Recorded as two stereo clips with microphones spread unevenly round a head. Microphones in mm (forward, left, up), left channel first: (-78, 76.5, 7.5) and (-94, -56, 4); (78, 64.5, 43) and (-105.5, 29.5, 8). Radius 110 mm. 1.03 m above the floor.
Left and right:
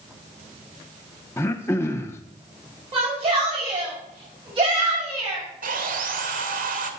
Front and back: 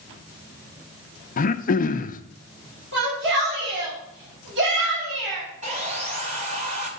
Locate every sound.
1.4 s throat clearing: 20° left, 0.6 m
2.9 s a shout: 140° right, 6 m
5.6 s sawing: 105° right, 1.5 m